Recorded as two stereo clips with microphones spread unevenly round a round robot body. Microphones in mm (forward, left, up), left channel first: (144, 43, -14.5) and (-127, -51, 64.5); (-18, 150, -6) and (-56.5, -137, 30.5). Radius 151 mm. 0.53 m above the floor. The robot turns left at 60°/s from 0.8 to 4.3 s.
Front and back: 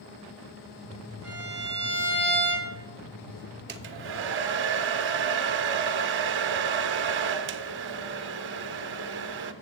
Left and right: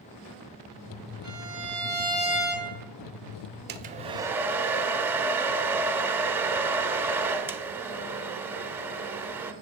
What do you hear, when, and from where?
1.2 s a violin: 105° right, 5.5 m; by 2.7 s 165° left, 5.5 m
3.7 s a hair dryer: 135° right, 0.5 m; by 9.5 s 175° right, 0.5 m